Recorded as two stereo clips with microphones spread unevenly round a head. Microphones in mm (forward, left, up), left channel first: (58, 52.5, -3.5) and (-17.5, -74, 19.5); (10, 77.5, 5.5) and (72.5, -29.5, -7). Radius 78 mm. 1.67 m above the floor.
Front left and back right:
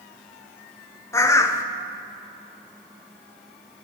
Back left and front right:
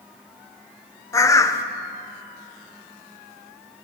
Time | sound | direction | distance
1.1 | a bird | 130° left | 0.6 m